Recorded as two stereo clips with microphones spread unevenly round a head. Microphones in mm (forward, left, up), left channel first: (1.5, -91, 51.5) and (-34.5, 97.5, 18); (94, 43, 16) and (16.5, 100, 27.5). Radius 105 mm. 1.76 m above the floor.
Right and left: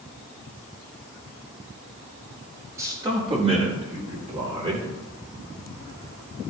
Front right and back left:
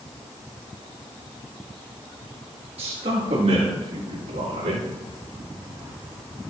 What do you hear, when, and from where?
2.8 s a man speaking: straight behind, 1.6 m; by 4.9 s 160° left, 4 m